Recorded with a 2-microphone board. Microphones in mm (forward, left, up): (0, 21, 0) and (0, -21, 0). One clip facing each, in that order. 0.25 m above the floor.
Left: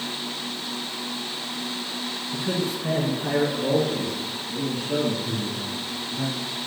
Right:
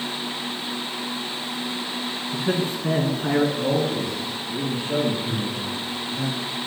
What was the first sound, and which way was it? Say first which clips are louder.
A man speaking: right 2 dB; 50° right (ahead or behind).